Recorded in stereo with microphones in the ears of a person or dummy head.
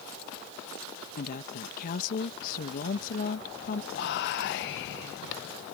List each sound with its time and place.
1.2 s a woman speaking: 50° left (ahead or behind)
3.9 s whispering: 65° left (ahead or behind)